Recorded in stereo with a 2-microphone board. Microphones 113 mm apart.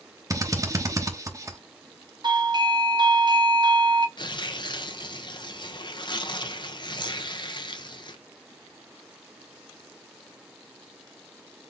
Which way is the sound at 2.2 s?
40° right (ahead or behind).